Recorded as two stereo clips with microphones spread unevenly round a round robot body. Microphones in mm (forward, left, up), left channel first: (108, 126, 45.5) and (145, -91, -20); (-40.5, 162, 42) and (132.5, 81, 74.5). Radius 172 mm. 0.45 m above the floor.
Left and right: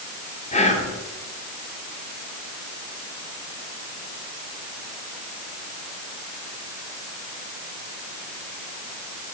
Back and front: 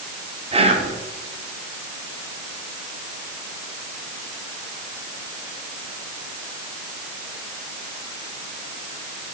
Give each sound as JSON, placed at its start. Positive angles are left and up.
{"t": 0.5, "sound": "whispering", "azimuth_deg": 35, "distance_m": 1.4}